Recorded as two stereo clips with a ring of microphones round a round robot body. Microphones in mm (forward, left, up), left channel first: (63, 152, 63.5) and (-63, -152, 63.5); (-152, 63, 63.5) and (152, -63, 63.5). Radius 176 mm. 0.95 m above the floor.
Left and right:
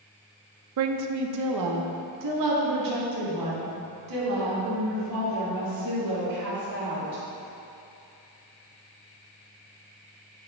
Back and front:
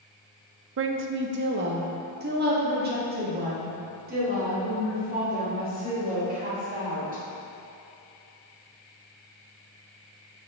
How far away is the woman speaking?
About 0.5 m.